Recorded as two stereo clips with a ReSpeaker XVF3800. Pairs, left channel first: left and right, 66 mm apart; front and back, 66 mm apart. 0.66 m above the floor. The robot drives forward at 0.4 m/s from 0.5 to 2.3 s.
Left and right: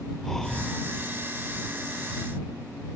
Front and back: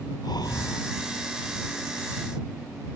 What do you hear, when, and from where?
0.2 s breathing: 5° left